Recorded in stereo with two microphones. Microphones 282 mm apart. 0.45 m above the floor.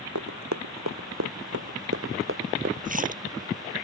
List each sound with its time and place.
0.1 s running footsteps: 80° right; by 2.8 s 40° right (ahead or behind)
2.9 s a splash: 30° right (ahead or behind)